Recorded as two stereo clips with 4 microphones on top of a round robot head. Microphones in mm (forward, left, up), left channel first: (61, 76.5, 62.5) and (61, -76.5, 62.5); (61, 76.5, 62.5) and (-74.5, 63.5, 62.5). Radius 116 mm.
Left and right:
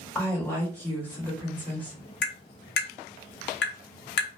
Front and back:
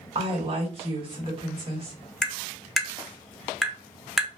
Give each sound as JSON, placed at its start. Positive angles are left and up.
{"t": 0.1, "sound": "a woman speaking", "azimuth_deg": 165, "distance_m": 1.3}
{"t": 2.2, "sound": "tapping", "azimuth_deg": 95, "distance_m": 0.8}